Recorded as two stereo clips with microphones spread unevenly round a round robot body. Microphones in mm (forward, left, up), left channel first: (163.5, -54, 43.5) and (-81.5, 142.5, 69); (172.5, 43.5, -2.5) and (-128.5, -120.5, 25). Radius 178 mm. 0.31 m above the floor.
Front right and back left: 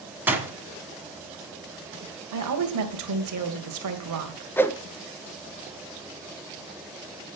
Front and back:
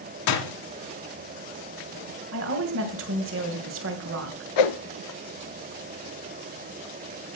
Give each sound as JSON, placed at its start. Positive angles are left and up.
{"t": 0.3, "sound": "a door slam", "azimuth_deg": 55, "distance_m": 1.9}
{"t": 2.3, "sound": "a woman speaking", "azimuth_deg": 160, "distance_m": 2.0}
{"t": 4.6, "sound": "a whoosh", "azimuth_deg": 45, "distance_m": 0.9}